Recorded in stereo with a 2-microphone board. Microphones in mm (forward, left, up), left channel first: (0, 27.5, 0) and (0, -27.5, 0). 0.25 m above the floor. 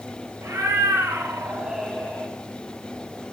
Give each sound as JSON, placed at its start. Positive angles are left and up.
{"t": 0.4, "sound": "a cat meowing", "side_deg": -55, "distance_m": 1.5}